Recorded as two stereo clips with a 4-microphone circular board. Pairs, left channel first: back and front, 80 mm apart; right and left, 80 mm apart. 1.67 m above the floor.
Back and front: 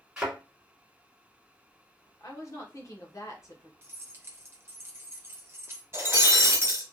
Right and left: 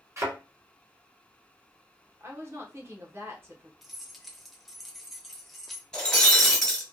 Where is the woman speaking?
140° left, 0.9 m.